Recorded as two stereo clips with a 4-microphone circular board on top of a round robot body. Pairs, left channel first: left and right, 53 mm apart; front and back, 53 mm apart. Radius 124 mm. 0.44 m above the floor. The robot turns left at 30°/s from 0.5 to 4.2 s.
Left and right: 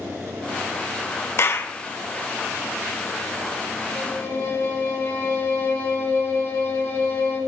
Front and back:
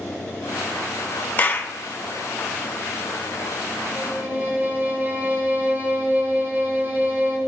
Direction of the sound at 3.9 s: 135° left.